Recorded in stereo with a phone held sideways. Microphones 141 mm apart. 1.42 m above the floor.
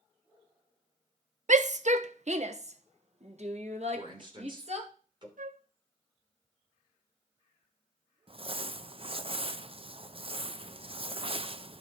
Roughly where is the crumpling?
Right.